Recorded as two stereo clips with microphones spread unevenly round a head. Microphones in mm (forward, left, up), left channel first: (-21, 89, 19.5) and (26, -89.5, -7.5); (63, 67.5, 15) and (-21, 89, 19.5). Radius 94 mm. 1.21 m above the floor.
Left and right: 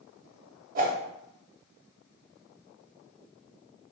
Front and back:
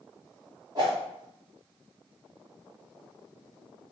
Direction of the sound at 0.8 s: 125° right.